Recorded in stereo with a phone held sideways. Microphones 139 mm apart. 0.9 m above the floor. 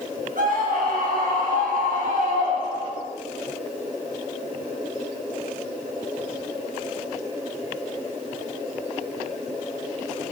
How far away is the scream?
About 3.5 m.